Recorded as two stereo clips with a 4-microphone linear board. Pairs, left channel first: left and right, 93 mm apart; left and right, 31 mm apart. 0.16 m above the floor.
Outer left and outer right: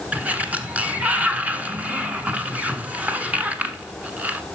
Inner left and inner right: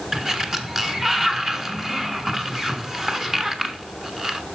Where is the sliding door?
15° right (ahead or behind), 1.1 m.